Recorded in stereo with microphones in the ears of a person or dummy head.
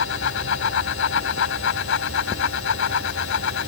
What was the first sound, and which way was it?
A fan, 75° left (ahead or behind).